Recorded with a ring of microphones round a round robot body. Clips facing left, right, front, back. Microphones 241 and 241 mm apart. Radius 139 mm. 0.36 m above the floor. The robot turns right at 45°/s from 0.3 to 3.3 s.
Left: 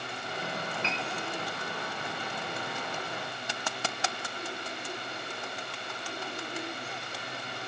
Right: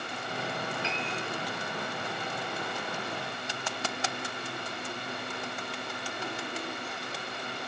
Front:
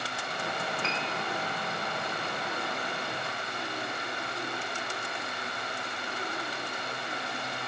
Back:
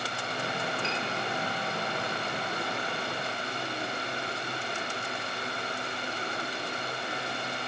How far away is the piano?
About 4.5 m.